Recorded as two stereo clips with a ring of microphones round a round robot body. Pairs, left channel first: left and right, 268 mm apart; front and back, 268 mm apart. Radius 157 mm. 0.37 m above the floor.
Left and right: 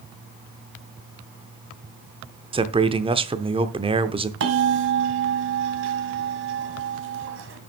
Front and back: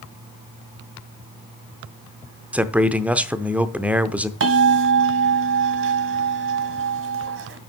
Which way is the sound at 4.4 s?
140° right.